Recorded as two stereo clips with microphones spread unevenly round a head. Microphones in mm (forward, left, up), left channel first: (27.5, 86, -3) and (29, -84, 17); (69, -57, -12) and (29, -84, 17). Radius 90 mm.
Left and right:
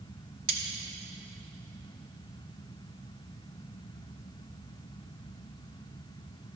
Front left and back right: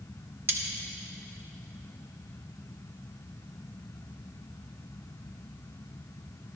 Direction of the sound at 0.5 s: 120° right.